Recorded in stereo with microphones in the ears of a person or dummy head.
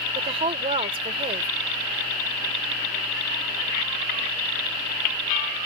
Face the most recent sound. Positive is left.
turn(degrees=-35)  # may be behind; listen again after turning